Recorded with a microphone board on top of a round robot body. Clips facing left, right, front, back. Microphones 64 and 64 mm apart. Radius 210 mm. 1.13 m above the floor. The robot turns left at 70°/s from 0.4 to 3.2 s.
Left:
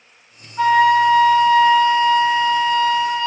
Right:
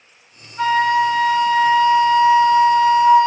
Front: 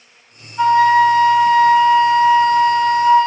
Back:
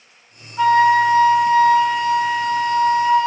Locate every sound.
0.6 s a flute: 160° left, 0.7 m; by 3.3 s 25° right, 0.7 m